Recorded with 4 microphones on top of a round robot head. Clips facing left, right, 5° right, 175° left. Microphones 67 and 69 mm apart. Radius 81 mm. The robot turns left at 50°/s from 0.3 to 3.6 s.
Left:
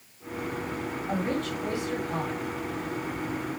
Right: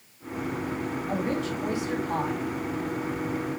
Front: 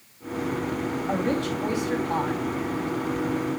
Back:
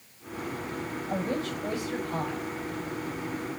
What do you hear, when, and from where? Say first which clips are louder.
1.1 s a woman speaking: even, front 4 dB; 15° left, 5 m; by 2.4 s 50° right, 5 m